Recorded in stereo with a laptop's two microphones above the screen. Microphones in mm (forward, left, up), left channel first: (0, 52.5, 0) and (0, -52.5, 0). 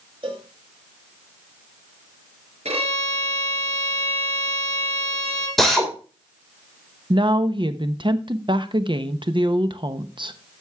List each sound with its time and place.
0.2 s a cowbell: 55° right (ahead or behind), 1.6 m
2.6 s a violin: 75° right (ahead or behind), 4 m
5.6 s a drill: centre (ahead or behind), 3.5 m
7.1 s a woman speaking: 50° right (ahead or behind), 1.0 m